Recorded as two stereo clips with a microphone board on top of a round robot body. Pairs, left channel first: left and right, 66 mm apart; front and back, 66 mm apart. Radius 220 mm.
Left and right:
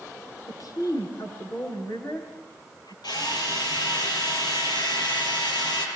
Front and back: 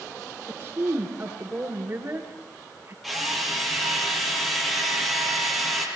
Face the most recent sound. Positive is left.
turn(degrees=90)